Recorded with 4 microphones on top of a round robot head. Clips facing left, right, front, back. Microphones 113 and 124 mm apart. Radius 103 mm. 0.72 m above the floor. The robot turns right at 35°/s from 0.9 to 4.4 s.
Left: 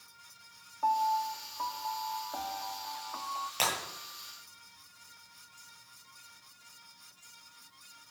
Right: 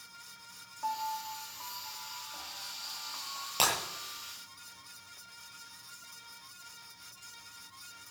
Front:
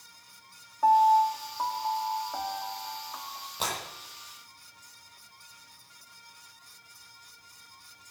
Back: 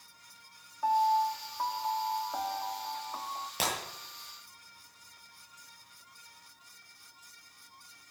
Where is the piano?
40° left, 1.0 m; by 3.5 s 130° left, 1.0 m.